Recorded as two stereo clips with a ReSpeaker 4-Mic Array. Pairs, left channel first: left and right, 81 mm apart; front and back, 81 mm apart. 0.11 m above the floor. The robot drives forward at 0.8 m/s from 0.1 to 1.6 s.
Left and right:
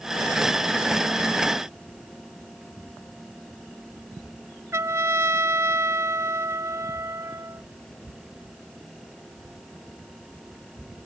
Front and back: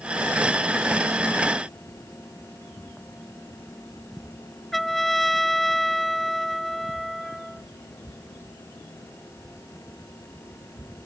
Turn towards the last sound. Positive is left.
turn(degrees=-85)